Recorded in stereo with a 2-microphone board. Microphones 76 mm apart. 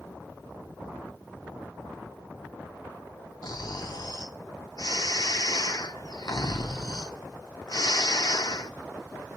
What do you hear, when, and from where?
3.4 s snoring: 60° left (ahead or behind), 0.8 m